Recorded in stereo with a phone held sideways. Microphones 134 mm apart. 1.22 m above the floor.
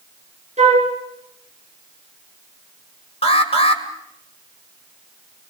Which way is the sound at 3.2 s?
45° left (ahead or behind).